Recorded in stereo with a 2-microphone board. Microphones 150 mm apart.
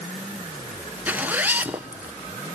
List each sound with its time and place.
1.1 s a zipper: 10° right (ahead or behind), 0.8 m